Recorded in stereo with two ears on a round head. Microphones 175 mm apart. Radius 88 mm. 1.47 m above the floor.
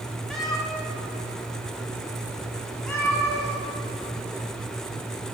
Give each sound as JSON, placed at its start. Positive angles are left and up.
{"t": 0.3, "sound": "a cat meowing", "side_deg": 0, "distance_m": 1.5}